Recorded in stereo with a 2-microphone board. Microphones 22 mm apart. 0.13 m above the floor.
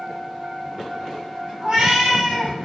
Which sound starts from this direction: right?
A cat meowing, at 1.6 s.